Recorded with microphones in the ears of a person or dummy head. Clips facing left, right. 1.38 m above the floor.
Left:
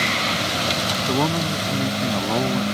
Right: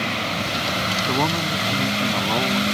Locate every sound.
1.1 s a man speaking: 10° left (ahead or behind); by 2.6 s 15° left (ahead or behind)